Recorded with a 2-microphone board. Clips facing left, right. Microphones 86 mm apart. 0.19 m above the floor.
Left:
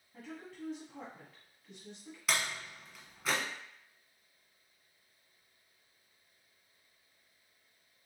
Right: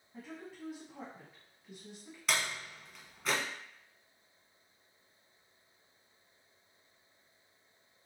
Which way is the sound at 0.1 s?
5° right (ahead or behind).